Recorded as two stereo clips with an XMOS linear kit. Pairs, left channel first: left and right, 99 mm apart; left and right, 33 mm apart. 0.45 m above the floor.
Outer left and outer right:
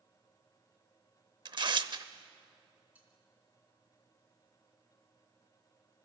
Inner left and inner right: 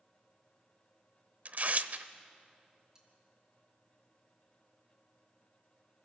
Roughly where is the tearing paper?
Right.